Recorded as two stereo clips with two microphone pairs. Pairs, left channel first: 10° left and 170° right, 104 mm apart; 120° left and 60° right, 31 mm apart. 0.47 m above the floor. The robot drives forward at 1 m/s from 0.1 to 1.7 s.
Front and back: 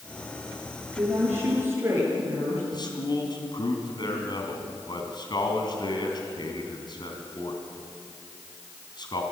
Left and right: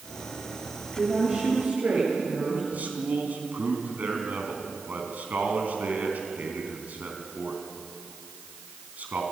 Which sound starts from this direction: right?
A woman speaking, at 0.9 s.